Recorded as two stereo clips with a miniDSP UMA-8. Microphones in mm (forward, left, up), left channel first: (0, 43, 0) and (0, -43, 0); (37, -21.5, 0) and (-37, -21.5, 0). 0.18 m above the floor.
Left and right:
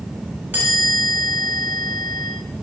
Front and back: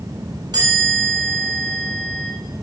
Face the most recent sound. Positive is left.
turn(degrees=-155)